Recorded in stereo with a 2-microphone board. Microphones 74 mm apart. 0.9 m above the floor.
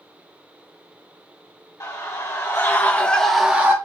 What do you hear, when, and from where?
1.8 s a scream: 50° left (ahead or behind), 1.7 m; by 3.8 s 25° right (ahead or behind), 0.8 m